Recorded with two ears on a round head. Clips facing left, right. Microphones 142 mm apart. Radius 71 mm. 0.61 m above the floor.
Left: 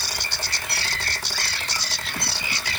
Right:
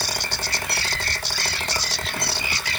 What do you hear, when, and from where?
Only background noise.